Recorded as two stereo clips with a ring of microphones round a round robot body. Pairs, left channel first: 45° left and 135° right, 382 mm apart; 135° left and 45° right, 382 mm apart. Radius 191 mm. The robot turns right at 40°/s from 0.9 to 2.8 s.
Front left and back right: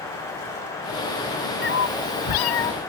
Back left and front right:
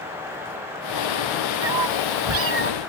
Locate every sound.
1.6 s a cat meowing: 20° right; by 2.7 s 25° left